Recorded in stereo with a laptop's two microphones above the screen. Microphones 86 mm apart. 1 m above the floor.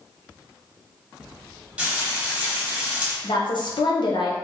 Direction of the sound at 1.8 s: 10° right (ahead or behind).